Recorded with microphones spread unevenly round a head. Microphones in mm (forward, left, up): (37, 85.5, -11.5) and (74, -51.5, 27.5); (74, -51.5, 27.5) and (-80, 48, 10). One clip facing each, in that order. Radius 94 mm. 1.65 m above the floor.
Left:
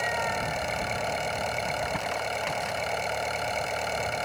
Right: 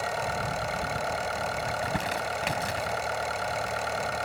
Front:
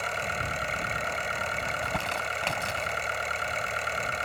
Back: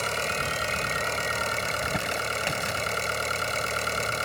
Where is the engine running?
170° right.